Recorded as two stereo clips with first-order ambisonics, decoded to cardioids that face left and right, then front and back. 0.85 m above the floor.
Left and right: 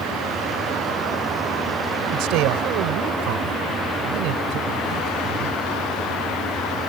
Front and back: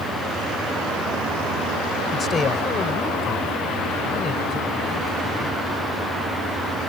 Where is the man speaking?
65° right.